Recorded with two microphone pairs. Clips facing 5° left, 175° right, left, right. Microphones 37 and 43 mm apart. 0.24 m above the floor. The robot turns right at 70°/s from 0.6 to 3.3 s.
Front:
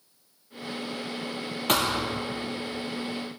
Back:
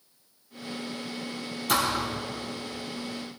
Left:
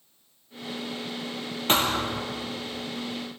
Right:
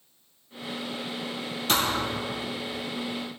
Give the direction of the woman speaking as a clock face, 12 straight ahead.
No woman speaking in this recording.